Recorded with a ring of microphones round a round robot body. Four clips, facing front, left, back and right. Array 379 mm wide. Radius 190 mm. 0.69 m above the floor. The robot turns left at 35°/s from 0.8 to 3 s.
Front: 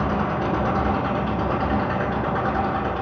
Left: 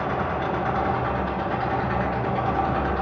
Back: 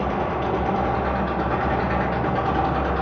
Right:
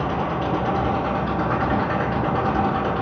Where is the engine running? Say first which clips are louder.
Right 2 dB, even; 20° right, 6 m; by 3.0 s 95° right, 6 m.